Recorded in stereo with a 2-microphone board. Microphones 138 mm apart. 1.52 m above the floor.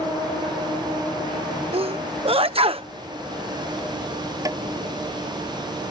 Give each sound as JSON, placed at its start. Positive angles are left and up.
{"t": 1.7, "sound": "a sneeze", "side_deg": -45}
{"t": 4.5, "sound": "tapping", "side_deg": -25}